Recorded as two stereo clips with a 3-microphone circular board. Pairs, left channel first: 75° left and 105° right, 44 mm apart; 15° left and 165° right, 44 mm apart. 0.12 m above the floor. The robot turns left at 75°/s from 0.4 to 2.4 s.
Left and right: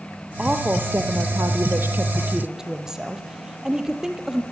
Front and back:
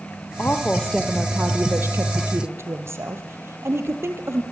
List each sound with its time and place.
0.4 s a woman speaking: 30° right, 3.5 m; by 4.4 s straight behind, 3.5 m